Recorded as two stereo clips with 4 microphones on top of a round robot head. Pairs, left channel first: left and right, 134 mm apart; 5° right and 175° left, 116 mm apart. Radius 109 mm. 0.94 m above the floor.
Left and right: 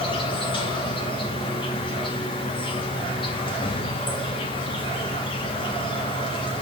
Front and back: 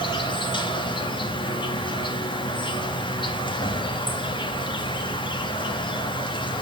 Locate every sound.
0.0 s an insect: 40° left, 2.5 m